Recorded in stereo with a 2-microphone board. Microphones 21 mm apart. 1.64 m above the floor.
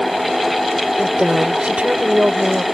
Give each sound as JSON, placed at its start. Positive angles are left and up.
{"t": 1.0, "sound": "a woman speaking", "side_deg": -75}